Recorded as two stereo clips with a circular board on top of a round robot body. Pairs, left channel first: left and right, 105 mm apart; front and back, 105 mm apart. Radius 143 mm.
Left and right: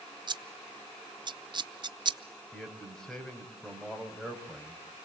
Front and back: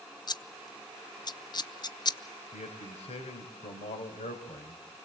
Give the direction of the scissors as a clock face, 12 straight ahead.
2 o'clock.